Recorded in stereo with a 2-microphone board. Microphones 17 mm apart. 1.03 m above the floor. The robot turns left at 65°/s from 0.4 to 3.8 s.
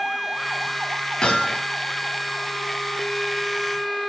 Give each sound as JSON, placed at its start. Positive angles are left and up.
{"t": 1.2, "sound": "hammering", "side_deg": 75, "distance_m": 6.5}